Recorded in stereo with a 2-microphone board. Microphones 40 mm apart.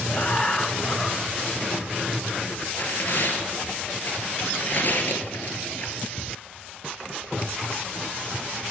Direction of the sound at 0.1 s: 35° left (ahead or behind).